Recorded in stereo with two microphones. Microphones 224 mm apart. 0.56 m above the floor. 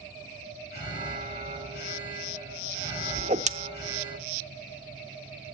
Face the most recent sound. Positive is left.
turn(degrees=-30)  # may be behind; listen again after turning